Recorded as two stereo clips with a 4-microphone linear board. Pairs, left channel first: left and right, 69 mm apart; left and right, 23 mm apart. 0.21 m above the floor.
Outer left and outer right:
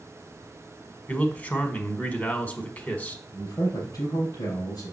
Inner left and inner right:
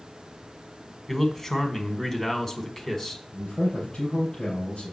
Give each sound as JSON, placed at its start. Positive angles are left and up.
{"t": 1.1, "sound": "a man speaking", "side_deg": 20, "distance_m": 1.4}
{"t": 3.3, "sound": "a man speaking", "side_deg": 65, "distance_m": 4.0}